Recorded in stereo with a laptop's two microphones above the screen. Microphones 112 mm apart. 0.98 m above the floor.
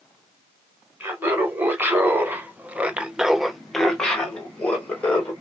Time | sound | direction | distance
1.0 | laughter | 20° right (ahead or behind) | 1.6 m